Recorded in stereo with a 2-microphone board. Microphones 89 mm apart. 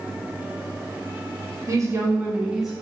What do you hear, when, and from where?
1.7 s a woman speaking: 35° right (ahead or behind), 0.7 m; by 2.7 s centre (ahead or behind), 0.8 m